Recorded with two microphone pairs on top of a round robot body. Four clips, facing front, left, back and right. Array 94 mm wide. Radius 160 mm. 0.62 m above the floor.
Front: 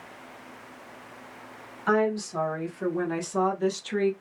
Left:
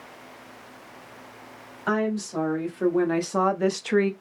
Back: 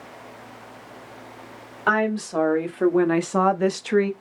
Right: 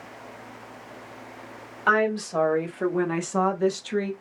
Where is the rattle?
I don't hear a rattle.